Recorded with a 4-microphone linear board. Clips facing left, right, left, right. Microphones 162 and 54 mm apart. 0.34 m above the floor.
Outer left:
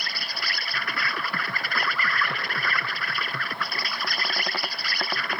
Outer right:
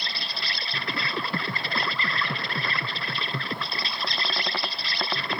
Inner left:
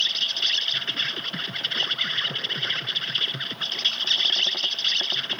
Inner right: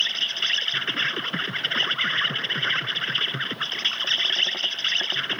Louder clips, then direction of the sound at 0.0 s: Even, inner right 1 dB; 25° right (ahead or behind).